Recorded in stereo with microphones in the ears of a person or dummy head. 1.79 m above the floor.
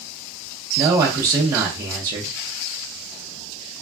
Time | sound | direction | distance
0.8 | a man speaking | 20° right (ahead or behind) | 0.6 m